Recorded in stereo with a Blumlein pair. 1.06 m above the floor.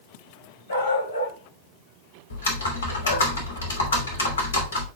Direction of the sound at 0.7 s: 65° left.